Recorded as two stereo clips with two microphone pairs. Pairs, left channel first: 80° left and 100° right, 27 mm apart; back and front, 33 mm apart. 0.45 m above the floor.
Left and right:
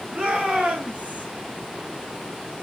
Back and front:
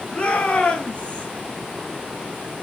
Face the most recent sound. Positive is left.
turn(degrees=-130)